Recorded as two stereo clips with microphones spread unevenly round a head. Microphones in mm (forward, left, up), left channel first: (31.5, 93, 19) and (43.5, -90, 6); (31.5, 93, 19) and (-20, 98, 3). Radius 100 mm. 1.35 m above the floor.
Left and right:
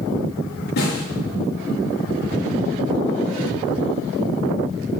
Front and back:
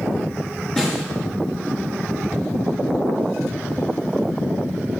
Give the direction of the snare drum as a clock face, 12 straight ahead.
10 o'clock.